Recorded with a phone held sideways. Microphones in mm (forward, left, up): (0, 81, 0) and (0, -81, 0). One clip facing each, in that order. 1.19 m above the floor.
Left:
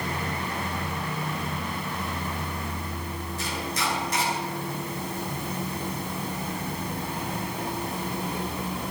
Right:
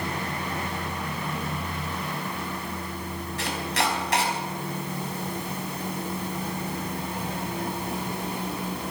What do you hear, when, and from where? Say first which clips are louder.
3.4 s chopping: right 4 dB; 75° right (ahead or behind), 4.5 m